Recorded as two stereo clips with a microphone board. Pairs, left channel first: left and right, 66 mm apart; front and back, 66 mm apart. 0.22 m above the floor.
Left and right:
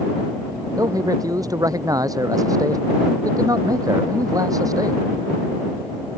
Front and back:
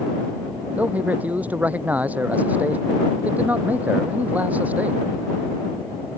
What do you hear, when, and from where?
0.8 s a man speaking: 110° right